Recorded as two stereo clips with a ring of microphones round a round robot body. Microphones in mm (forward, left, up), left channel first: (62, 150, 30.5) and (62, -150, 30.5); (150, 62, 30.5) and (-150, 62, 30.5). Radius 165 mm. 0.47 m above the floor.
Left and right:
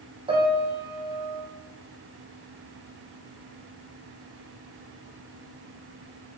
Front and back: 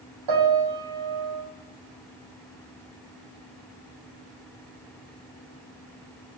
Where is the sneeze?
I don't hear a sneeze.